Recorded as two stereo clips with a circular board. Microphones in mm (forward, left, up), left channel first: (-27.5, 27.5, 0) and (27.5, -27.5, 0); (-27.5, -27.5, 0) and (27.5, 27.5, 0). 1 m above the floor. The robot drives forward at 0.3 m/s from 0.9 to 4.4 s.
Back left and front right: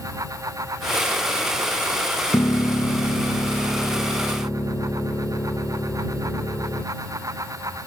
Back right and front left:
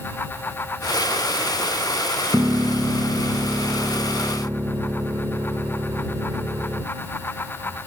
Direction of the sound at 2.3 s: 95° left.